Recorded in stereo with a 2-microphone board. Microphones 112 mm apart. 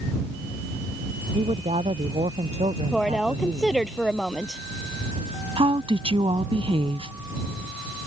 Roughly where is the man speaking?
Right.